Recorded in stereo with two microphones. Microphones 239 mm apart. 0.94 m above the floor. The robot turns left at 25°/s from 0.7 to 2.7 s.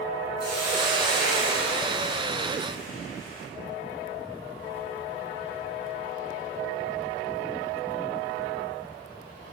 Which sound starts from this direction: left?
A hiss, at 0.4 s.